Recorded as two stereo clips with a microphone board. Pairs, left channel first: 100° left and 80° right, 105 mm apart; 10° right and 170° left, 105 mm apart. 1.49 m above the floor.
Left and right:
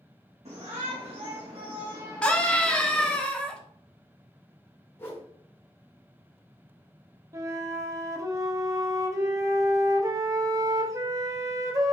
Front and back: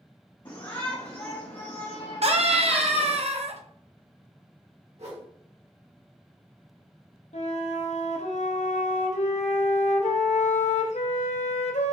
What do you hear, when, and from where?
0.5 s a shout: 60° right, 1.3 m; by 3.2 s 20° left, 0.9 m
2.2 s a scream: straight behind, 0.9 m
5.0 s a whoosh: 170° left, 1.3 m
7.3 s a flute: 15° right, 0.7 m